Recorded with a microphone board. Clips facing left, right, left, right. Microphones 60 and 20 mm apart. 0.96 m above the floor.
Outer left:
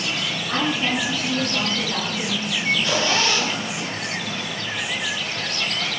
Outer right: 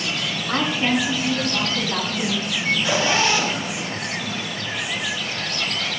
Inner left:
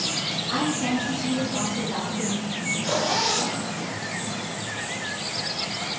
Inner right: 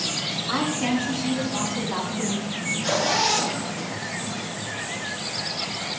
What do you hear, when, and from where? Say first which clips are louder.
0.5 s a woman speaking: outer right 2 dB, inner right 1 dB; 20° right (ahead or behind), 8 m; by 2.6 s 10° right (ahead or behind), 6.5 m
2.7 s a zipper: outer right 1 dB, inner right 1 dB; 15° right (ahead or behind), 7.5 m